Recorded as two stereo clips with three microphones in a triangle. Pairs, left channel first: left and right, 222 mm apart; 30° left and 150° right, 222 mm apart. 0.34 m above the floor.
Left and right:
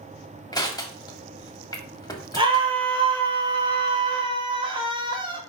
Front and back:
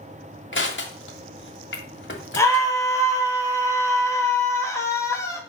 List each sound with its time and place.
0.5 s crushing: 20° left, 1.5 m
2.4 s a scream: 40° right, 1.7 m